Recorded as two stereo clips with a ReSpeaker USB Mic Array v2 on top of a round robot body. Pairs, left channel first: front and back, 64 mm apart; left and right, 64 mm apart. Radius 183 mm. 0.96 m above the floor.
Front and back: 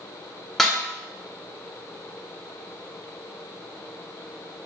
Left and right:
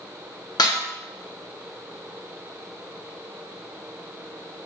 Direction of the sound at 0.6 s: 85° left.